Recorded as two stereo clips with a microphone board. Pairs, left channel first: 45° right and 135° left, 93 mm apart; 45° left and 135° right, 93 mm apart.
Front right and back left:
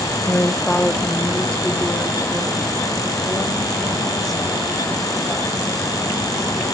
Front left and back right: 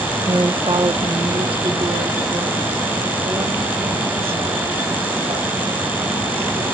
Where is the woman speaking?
105° right, 0.8 m; by 6.7 s 135° right, 5.5 m.